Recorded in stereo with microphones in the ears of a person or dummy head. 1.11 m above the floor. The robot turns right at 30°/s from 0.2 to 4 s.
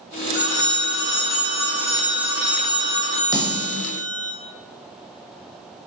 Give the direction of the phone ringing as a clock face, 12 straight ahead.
5 o'clock.